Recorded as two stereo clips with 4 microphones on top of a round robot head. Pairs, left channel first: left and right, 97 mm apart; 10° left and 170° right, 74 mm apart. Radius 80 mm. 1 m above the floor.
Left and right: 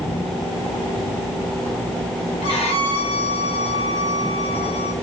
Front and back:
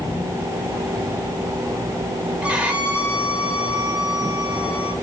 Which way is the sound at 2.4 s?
115° left.